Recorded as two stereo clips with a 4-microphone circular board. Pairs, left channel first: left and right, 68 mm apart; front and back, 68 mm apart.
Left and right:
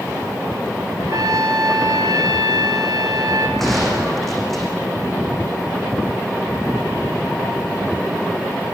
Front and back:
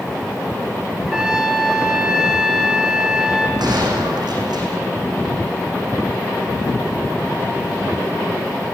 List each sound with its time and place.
1.0 s a trumpet: 100° right, 3 m
3.6 s a gunshot: straight behind, 8.5 m